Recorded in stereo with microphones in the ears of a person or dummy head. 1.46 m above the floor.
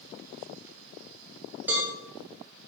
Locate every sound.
1.7 s a cowbell: 10° right (ahead or behind), 4 m